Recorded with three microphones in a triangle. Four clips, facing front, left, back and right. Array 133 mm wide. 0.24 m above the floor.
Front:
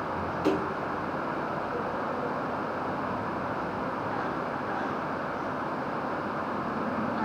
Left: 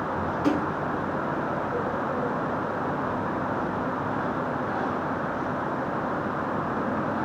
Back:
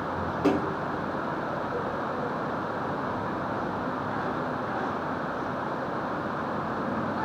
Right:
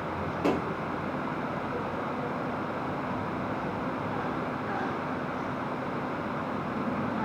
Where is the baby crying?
I don't hear a baby crying.